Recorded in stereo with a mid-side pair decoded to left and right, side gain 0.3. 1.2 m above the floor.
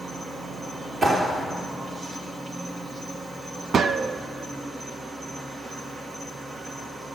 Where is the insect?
55° right, 1.6 m.